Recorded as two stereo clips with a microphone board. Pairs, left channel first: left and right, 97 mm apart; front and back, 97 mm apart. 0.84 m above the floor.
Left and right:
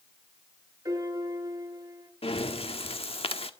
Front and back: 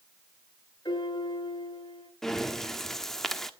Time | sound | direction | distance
0.8 | a piano | 40° right | 5 m
2.2 | breathing | 85° left | 1.2 m